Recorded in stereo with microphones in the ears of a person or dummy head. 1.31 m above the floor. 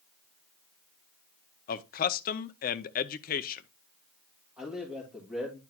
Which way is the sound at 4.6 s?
5° right (ahead or behind).